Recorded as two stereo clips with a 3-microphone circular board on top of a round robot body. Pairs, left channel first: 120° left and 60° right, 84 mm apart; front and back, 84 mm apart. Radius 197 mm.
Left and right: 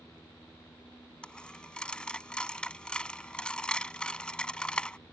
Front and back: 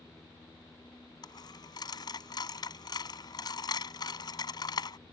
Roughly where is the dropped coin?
Ahead left.